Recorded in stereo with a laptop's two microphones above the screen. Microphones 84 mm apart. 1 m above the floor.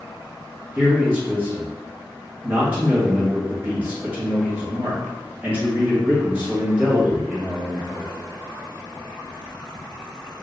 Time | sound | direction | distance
0.8 | a man speaking | 20° right (ahead or behind) | 1.2 m